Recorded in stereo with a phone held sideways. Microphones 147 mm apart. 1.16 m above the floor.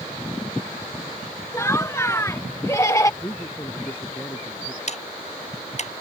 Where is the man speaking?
20° left (ahead or behind).